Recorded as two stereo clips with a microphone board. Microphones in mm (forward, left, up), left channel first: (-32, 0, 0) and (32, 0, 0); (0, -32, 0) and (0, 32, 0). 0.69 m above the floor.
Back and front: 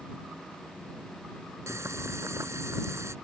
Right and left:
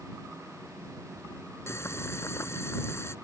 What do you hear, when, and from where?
1.7 s boiling: 45° right